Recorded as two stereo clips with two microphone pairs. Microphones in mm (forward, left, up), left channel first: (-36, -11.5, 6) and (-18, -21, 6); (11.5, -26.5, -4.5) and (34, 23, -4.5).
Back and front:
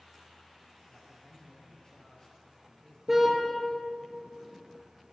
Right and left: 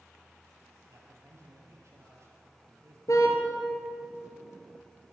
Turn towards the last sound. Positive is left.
turn(degrees=-105)